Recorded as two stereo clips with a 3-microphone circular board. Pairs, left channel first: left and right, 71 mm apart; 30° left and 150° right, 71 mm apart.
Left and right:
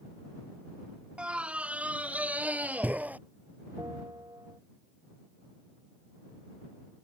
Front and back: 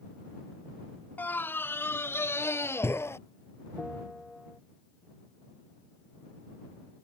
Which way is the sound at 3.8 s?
60° right.